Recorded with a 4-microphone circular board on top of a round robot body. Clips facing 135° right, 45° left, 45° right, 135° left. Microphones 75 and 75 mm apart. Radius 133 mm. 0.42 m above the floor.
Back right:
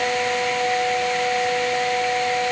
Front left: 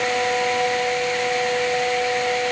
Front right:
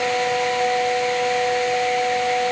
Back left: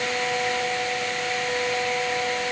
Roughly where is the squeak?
I don't hear a squeak.